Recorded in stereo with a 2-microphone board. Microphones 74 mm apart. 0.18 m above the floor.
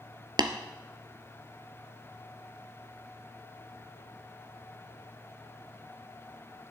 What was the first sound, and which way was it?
Tapping, 70° right (ahead or behind).